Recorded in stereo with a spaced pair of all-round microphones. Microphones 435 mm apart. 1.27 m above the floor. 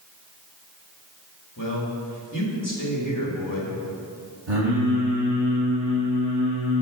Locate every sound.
1.6 s a man speaking: 45° left (ahead or behind), 1.9 m
4.5 s singing: 75° right (ahead or behind), 2.0 m